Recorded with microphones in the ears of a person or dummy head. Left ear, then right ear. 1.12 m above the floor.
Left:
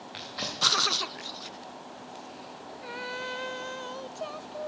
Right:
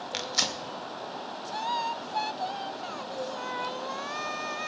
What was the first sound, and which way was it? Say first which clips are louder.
Tearing paper: right 4 dB; 80° right.